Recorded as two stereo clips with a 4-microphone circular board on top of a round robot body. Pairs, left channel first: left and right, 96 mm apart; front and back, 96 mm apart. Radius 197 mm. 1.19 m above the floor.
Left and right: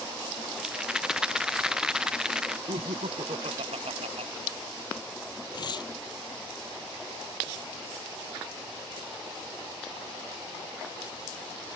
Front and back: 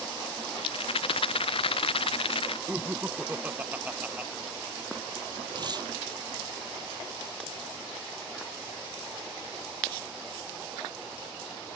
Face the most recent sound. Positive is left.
turn(degrees=135)